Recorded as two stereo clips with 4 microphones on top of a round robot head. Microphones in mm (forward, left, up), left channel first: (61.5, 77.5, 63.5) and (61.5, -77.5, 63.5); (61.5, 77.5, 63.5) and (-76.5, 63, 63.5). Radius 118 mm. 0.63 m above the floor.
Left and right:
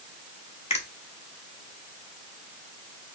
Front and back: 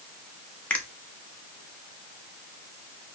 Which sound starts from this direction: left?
A finger snap, at 0.7 s.